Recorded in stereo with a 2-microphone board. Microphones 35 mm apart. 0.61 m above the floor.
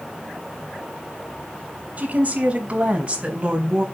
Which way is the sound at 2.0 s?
40° right (ahead or behind).